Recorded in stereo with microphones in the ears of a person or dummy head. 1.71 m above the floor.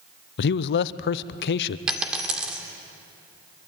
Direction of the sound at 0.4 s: 60° left (ahead or behind).